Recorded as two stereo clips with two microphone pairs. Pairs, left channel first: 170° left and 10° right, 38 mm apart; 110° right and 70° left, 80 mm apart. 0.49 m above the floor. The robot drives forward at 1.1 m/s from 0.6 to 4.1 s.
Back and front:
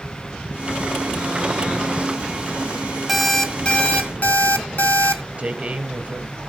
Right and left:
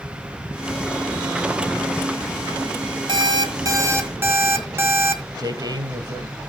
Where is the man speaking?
45° left, 2.5 m.